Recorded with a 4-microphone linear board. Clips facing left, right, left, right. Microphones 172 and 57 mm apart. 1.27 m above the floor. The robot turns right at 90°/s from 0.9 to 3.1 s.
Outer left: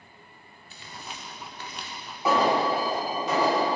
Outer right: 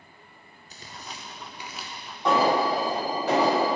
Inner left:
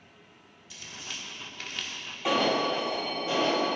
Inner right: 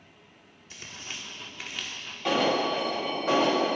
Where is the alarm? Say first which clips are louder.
Outer right 1 dB, inner right 1 dB; 170° left, 1.5 m; by 3.8 s 110° right, 1.5 m.